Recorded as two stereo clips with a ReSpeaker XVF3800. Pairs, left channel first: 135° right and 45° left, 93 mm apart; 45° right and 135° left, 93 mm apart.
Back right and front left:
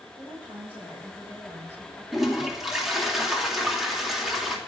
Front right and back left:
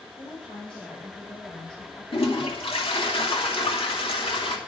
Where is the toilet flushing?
45° right, 2.5 m.